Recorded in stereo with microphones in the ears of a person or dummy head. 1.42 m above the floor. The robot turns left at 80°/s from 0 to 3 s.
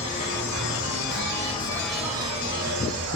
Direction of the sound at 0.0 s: 155° left.